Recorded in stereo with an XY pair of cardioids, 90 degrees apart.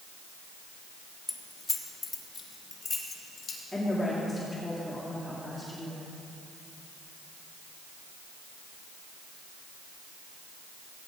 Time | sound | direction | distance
1.3 | keys jangling | 25° left | 1.4 m
3.7 | a woman speaking | 15° left | 2.5 m